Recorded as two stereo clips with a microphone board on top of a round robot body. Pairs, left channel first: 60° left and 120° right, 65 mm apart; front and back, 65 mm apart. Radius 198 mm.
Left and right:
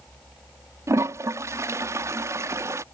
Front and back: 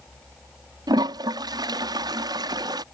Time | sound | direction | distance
0.9 | a toilet flushing | 165° right | ?